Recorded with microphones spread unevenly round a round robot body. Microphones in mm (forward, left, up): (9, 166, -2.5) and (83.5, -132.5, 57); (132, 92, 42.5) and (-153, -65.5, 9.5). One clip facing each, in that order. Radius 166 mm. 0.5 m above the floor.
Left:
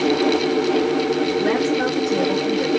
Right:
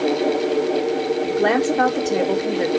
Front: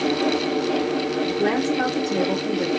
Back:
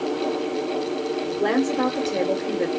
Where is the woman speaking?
65° right, 2 m.